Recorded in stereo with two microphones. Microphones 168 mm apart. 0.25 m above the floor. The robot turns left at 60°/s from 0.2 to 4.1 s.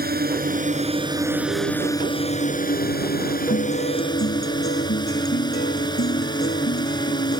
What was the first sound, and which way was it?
A drone, 95° right.